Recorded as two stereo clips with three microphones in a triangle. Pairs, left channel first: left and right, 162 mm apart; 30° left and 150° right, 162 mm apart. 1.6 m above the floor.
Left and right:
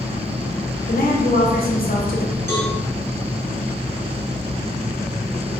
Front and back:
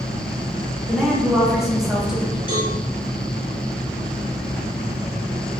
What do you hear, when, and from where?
0.9 s a woman speaking: 125° left, 0.6 m
2.5 s a cowbell: 45° left, 1.5 m